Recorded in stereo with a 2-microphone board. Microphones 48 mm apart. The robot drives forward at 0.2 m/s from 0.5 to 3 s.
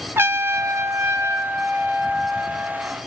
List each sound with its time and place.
0.2 s a trumpet: 55° right (ahead or behind), 0.7 m; by 3.0 s 40° right (ahead or behind), 0.9 m